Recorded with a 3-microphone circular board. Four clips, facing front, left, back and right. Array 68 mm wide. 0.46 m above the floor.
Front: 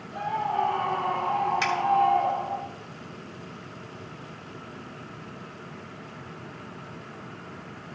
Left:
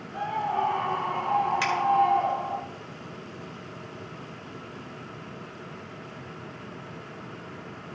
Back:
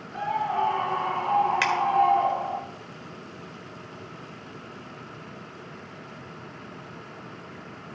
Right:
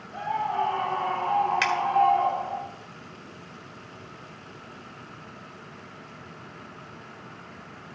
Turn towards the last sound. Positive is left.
turn(degrees=-145)